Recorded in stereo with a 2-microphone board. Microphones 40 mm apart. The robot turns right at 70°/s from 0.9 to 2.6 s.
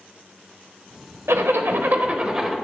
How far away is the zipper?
About 0.6 m.